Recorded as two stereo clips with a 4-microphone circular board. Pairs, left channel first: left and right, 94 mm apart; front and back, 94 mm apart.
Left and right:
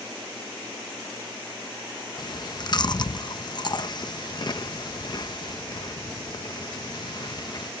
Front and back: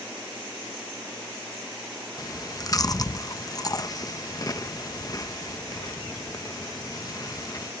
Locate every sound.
2.2 s chewing: 50° left